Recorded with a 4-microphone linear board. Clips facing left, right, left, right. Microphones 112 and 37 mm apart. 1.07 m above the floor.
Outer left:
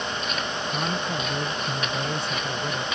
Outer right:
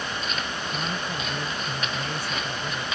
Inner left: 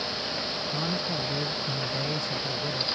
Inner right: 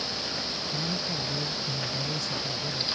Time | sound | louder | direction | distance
0.7 | a man speaking | outer left 3 dB, inner left 2 dB | 20° left (ahead or behind) | ?